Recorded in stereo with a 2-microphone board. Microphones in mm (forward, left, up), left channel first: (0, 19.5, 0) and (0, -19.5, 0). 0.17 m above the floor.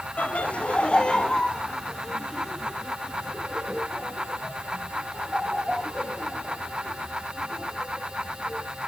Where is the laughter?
35° left (ahead or behind), 1.2 m; by 8.7 s 15° right (ahead or behind), 5.5 m.